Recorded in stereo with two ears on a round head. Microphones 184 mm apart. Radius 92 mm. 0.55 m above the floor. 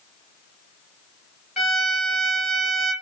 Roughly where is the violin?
Centre.